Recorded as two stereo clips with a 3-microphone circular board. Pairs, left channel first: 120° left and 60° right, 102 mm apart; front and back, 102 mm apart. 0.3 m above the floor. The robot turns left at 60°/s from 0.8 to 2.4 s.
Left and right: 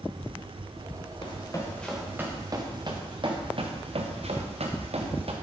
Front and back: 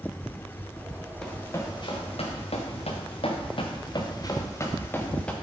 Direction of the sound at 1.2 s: 85° left.